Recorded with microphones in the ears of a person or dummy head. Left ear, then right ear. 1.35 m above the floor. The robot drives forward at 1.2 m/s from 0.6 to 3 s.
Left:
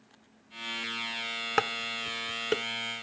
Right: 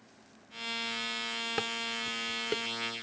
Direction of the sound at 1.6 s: 45° left (ahead or behind).